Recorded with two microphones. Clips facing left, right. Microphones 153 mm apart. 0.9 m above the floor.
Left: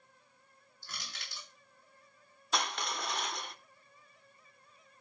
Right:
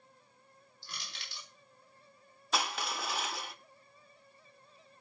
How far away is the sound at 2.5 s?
About 0.6 m.